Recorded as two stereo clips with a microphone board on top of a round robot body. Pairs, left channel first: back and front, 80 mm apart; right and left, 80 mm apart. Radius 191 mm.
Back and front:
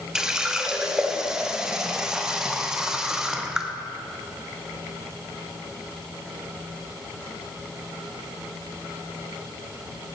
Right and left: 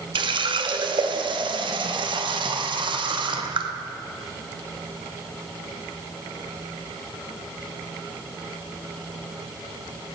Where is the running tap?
80° left, 1.0 m.